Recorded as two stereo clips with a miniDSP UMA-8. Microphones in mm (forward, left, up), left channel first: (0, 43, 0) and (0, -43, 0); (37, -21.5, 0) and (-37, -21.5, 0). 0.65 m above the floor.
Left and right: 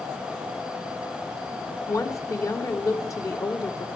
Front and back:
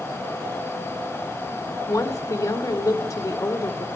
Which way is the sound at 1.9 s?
40° left.